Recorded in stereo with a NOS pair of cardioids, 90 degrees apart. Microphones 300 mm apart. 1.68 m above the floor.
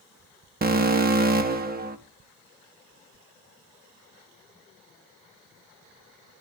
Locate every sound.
0.6 s an alarm: 30° right, 1.9 m